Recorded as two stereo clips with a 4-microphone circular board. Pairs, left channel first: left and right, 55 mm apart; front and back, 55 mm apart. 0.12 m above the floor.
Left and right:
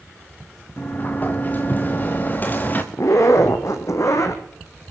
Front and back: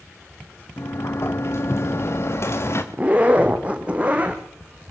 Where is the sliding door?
35° left, 3 m.